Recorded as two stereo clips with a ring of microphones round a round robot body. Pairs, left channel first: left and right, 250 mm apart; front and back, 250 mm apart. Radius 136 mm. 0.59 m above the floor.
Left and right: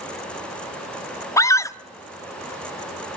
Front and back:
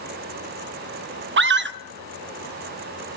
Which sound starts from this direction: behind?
A scream, at 1.4 s.